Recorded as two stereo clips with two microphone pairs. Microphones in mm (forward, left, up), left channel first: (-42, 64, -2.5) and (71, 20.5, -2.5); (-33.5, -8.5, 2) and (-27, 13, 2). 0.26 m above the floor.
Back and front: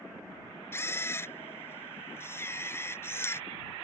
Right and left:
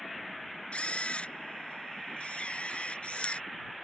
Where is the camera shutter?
130° right.